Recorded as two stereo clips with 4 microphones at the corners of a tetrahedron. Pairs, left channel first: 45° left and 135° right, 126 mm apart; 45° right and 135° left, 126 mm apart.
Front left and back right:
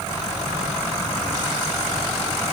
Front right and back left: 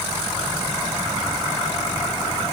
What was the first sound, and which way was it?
Only background noise.